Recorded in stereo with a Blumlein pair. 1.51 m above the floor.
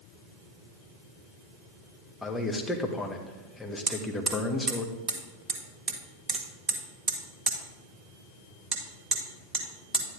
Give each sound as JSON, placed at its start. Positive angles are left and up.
{"t": 2.2, "sound": "a man speaking", "azimuth_deg": 10, "distance_m": 1.5}
{"t": 3.9, "sound": "hammering", "azimuth_deg": -25, "distance_m": 1.6}